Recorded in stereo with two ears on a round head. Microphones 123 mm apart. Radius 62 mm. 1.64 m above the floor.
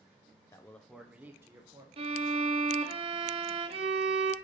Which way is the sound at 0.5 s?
20° left (ahead or behind).